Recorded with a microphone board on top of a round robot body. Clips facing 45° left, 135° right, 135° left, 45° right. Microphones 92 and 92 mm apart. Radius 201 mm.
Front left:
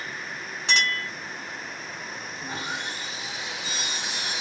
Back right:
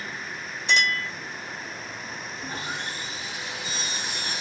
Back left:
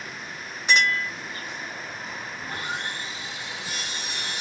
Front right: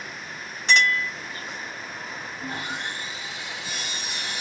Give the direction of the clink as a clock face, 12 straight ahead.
10 o'clock.